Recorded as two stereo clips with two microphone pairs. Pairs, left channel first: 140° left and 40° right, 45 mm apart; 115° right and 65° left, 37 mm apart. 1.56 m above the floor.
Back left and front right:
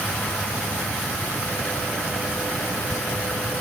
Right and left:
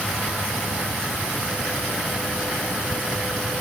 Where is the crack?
I don't hear a crack.